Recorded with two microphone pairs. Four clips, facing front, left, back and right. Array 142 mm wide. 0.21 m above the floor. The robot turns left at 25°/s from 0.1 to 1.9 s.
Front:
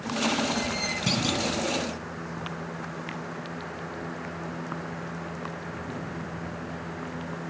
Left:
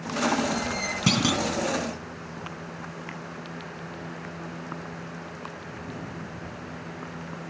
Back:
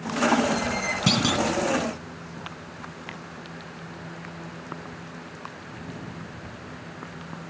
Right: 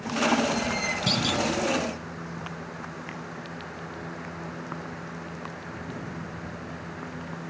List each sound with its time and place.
1.1 s a clunk: 125° left, 2.5 m; by 1.4 s 115° left, 2.5 m